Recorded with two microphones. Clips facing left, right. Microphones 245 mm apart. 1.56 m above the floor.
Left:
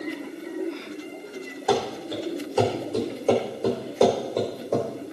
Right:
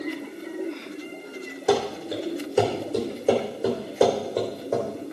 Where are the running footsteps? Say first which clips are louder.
Right 2 dB; 30° right (ahead or behind), 3.5 m; by 4.9 s centre (ahead or behind), 4.5 m.